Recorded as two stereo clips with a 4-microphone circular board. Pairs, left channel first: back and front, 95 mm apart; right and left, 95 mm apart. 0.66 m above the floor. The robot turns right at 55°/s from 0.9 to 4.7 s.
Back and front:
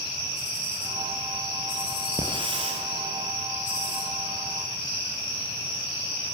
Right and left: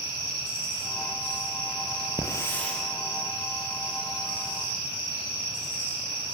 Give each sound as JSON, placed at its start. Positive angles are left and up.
{"t": 2.2, "sound": "a hiss", "azimuth_deg": -40, "distance_m": 6.5}